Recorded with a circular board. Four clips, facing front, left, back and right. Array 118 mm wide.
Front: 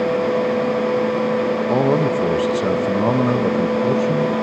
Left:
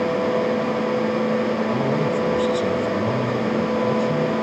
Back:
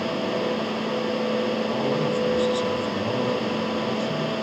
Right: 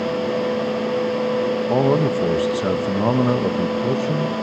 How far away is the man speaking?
About 1.9 m.